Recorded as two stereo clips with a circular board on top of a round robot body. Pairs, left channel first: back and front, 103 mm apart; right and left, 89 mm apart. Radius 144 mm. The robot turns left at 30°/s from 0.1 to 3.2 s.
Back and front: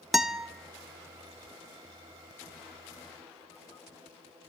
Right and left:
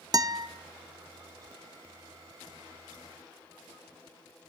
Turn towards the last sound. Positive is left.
turn(degrees=-5)